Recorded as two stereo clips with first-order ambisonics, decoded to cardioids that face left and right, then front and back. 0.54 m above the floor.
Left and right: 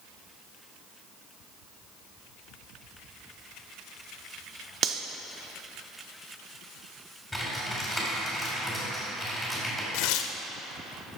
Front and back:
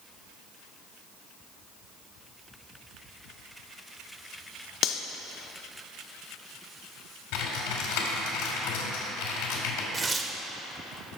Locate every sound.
4.8 s cutlery clinking: 40° right, 0.5 m
7.3 s typing on a keyboard: straight ahead, 2.5 m
9.9 s tearing paper: 105° left, 0.6 m